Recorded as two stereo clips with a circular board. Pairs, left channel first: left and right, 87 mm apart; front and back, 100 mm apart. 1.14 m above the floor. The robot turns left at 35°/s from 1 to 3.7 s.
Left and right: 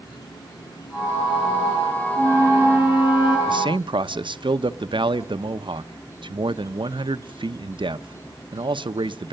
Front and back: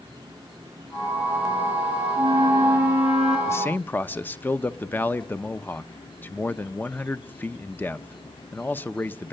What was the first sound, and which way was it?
An insect, 130° left.